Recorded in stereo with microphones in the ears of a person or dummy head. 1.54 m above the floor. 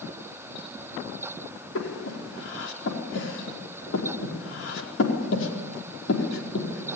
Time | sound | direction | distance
1.8 | breathing | 80° left | 4.5 m